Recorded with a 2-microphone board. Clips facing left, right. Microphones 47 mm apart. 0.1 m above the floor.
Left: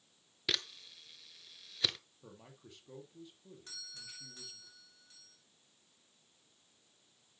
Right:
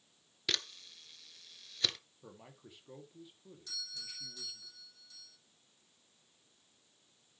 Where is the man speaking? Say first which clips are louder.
Right 3 dB; 10° right (ahead or behind), 2 m.